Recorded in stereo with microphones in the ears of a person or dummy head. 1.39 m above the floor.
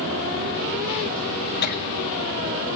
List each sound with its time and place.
1.6 s laughter: 45° left (ahead or behind), 1.4 m